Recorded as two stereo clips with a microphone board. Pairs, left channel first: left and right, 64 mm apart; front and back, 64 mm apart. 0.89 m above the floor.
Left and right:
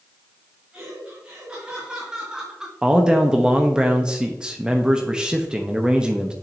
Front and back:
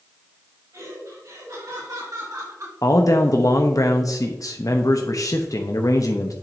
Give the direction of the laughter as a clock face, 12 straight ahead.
5 o'clock.